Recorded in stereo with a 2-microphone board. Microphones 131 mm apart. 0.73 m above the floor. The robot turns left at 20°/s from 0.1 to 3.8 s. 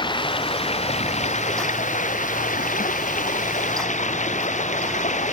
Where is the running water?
145° left; by 5.3 s 70° left.